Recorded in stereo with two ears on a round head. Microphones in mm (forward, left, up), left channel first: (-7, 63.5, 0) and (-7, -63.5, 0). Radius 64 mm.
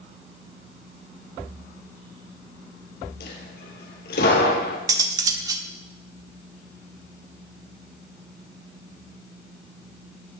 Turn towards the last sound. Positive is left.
turn(degrees=-25)  # may be behind; listen again after turning